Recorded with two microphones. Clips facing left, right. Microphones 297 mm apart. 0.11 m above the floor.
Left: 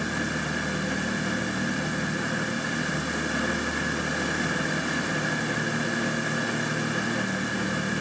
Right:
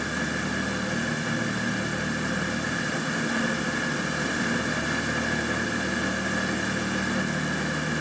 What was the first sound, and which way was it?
Only background noise.